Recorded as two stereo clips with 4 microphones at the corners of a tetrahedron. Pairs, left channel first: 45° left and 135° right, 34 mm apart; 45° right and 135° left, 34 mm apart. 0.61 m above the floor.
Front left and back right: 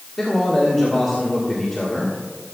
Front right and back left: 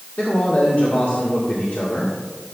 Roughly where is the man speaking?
Ahead right.